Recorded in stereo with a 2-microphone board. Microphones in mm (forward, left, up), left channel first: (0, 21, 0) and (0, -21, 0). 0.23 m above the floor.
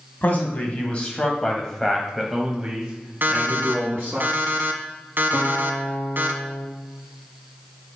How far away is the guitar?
About 2.5 m.